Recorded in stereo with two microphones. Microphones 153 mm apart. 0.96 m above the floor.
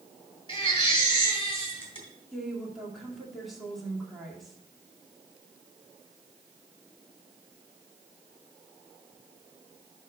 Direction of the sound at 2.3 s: Centre (ahead or behind).